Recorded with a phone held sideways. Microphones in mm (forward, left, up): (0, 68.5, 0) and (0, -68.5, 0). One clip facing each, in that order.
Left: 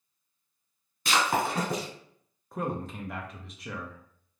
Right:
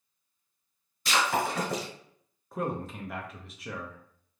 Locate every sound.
1.1 s breaking glass: 65° left (ahead or behind), 1.8 m
2.5 s a man speaking: centre (ahead or behind), 0.5 m